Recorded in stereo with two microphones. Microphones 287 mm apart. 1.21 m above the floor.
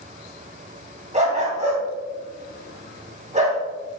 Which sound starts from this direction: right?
A dog barking, at 1.1 s.